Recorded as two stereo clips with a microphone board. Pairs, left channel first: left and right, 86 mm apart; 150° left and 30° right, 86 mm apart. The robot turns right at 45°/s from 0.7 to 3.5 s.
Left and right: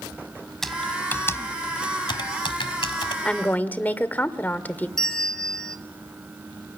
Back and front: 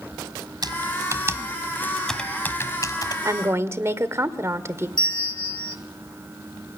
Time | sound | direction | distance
0.6 | typing on a keyboard | 5° left | 1.6 m
3.2 | a woman speaking | 10° left | 1.7 m
5.0 | a bell | 175° left | 1.1 m